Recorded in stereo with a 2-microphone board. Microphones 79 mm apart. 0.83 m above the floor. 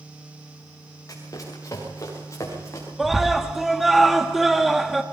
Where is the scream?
Centre (ahead or behind), 1.5 m.